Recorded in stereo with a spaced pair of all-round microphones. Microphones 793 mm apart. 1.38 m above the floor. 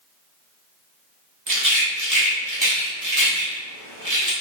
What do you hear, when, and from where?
1.5 s a rattle: 25° right (ahead or behind), 0.8 m